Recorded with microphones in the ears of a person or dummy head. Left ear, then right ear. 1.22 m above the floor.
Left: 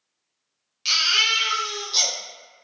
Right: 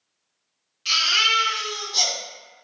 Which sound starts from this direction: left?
A baby crying, at 0.8 s.